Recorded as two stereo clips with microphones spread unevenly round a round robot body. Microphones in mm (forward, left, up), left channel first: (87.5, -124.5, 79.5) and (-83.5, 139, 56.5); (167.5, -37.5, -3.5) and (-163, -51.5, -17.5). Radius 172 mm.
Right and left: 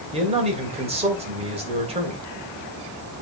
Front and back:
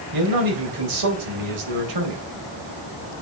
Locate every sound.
0.1 s a man speaking: 170° right, 3 m